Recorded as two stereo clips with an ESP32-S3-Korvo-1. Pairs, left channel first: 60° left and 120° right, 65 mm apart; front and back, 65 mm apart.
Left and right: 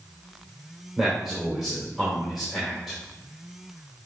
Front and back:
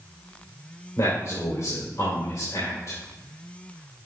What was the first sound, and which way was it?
A man speaking, 30° right.